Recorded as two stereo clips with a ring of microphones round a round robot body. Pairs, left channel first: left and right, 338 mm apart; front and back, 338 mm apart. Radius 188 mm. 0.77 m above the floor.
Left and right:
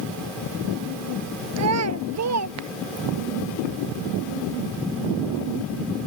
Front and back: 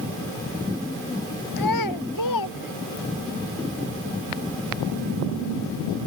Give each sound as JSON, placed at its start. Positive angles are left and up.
{"t": 1.6, "sound": "a child speaking", "azimuth_deg": -45}